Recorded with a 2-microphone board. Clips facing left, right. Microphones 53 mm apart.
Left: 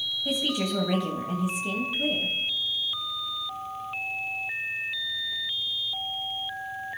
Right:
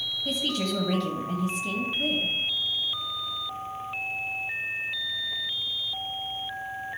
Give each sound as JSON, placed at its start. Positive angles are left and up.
{"t": 0.2, "sound": "a woman speaking", "side_deg": 15, "distance_m": 1.4}